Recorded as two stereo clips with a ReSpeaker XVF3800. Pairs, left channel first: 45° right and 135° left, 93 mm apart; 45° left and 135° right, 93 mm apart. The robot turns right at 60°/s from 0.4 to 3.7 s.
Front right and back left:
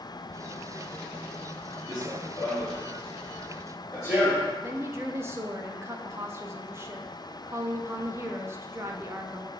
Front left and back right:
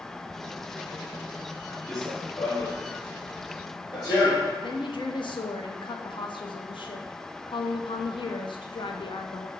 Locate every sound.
1.9 s running footsteps: 40° right, 1.8 m; by 4.5 s 5° left, 2.5 m
4.6 s a woman speaking: 70° left, 0.6 m